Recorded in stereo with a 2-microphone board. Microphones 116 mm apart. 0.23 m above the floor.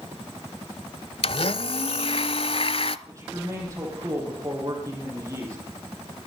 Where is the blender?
55° left (ahead or behind), 0.6 m.